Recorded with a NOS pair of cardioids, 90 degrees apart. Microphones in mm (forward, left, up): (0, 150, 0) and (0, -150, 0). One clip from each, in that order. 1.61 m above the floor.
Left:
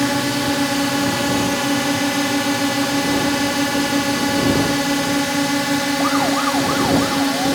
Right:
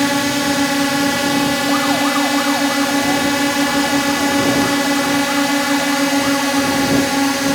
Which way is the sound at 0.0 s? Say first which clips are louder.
Right 3 dB; 25° right.